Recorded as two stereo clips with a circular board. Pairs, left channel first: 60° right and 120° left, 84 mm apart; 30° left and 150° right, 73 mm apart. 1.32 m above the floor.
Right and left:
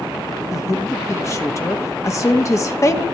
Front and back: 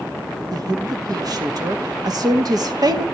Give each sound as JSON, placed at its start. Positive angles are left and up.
{"t": 0.5, "sound": "a woman speaking", "azimuth_deg": -115, "distance_m": 1.5}